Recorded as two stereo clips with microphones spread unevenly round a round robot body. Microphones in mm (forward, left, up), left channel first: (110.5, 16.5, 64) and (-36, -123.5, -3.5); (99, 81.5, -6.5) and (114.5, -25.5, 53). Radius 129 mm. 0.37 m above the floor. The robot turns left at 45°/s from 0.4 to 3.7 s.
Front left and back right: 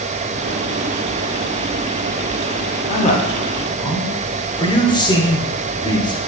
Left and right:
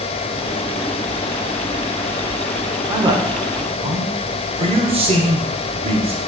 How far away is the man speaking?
About 1.6 m.